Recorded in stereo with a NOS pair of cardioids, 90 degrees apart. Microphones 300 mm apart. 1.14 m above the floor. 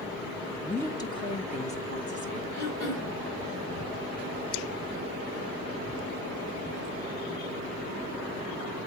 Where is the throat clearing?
70° left, 2.5 m.